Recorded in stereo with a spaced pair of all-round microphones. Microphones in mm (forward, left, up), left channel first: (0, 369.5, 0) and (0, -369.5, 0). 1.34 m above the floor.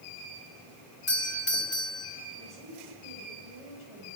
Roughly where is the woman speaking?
Right.